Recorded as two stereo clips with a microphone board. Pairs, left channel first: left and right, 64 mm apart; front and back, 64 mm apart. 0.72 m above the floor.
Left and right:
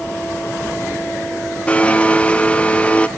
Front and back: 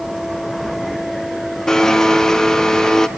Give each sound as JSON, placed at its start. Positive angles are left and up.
{"t": 1.7, "sound": "a blender", "azimuth_deg": 65, "distance_m": 0.9}